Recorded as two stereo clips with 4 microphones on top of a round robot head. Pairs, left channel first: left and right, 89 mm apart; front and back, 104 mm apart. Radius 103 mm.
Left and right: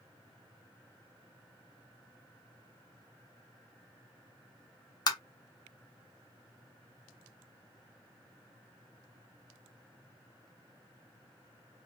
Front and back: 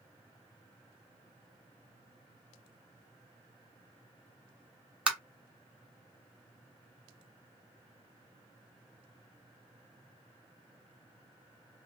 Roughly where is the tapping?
Left.